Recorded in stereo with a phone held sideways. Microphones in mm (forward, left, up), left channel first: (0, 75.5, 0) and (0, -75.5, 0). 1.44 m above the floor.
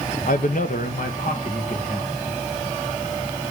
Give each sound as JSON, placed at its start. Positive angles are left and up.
{"t": 0.3, "sound": "a man speaking", "side_deg": 65, "distance_m": 0.8}